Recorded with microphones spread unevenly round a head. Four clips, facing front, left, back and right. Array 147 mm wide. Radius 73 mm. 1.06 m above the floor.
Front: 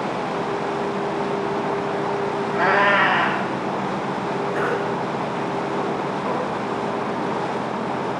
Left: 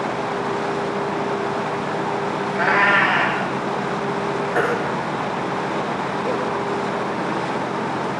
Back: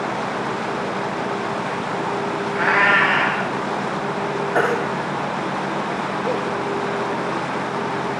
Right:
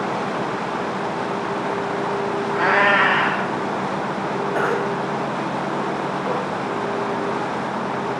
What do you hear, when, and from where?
2.5 s a cat meowing: 30° right, 3.5 m
4.5 s a baby crying: 170° right, 6 m